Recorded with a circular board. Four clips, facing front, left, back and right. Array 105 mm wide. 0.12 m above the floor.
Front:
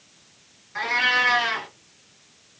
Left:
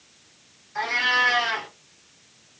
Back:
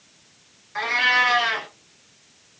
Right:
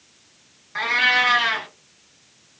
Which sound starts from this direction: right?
A cat meowing, at 0.8 s.